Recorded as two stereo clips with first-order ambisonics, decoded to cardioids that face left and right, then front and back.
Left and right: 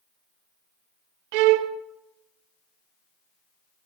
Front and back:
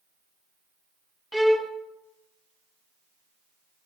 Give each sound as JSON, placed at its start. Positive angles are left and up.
{"t": 1.3, "sound": "a violin", "azimuth_deg": -90, "distance_m": 0.8}